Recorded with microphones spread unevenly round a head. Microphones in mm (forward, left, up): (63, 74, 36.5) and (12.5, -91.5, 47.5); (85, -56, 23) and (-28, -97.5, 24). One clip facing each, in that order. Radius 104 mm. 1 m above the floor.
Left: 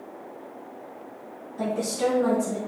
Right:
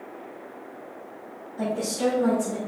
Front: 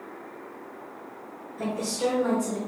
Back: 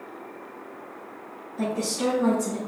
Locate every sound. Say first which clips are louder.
1.6 s a woman speaking: even, back 1 dB; 165° left, 2.5 m; by 2.6 s 170° right, 2.5 m